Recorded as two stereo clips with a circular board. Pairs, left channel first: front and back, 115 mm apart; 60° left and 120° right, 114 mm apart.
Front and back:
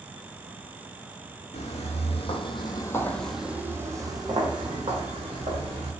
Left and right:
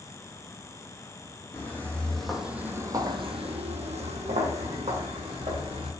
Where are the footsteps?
10° right, 0.9 m; by 5.9 s 145° right, 1.6 m.